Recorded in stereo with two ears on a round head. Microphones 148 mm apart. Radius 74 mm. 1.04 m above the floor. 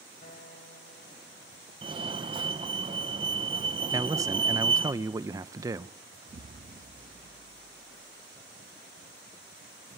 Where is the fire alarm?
30° right (ahead or behind), 1.6 m.